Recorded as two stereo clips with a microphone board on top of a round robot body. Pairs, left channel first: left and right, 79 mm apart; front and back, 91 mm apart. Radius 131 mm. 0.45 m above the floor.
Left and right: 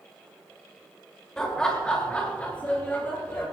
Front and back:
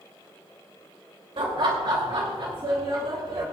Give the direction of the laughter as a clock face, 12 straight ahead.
6 o'clock.